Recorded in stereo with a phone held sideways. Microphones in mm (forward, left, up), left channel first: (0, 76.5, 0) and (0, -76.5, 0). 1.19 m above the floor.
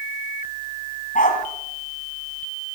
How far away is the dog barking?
About 4 m.